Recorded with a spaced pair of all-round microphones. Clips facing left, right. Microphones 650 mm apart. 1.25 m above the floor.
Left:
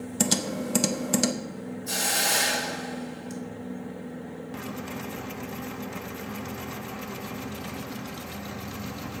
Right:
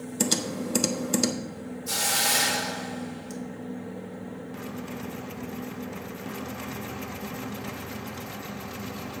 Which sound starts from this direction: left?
Typing on a keyboard, at 0.2 s.